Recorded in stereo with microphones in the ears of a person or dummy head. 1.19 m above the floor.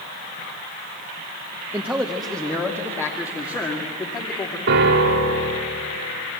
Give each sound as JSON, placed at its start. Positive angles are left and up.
{"t": 1.7, "sound": "a man speaking", "side_deg": -5, "distance_m": 1.1}
{"t": 4.7, "sound": "a piano", "side_deg": -70, "distance_m": 3.0}